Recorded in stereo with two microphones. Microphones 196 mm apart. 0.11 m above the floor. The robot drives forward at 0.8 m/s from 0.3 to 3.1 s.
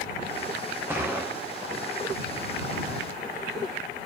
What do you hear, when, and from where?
0.9 s a gunshot: 10° right (ahead or behind), 2.5 m